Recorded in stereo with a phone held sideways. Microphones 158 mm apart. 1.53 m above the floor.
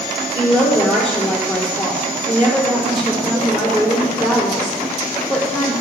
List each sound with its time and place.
0.3 s a woman speaking: 40° left (ahead or behind), 5.5 m